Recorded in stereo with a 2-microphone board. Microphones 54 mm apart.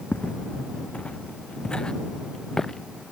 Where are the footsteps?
30° left (ahead or behind); by 2.9 s 10° left (ahead or behind).